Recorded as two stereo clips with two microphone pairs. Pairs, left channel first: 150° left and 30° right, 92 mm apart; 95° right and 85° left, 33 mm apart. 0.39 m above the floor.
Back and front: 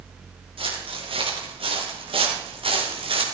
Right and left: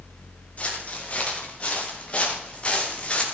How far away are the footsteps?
About 6 m.